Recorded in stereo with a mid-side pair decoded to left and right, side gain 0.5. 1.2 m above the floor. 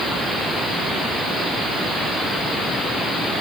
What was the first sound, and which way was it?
Only background noise.